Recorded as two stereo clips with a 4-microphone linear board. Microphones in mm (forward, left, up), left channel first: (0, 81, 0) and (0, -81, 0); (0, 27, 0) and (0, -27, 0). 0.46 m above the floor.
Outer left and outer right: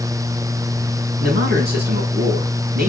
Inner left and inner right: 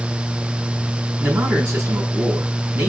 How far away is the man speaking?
About 4.5 m.